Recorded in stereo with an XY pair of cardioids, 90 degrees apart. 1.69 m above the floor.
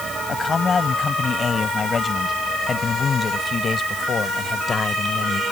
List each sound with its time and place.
0.3 s a man speaking: 40° left; by 5.4 s 45° left